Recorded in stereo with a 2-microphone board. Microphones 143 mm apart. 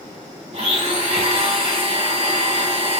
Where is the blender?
40° right (ahead or behind), 1.1 m.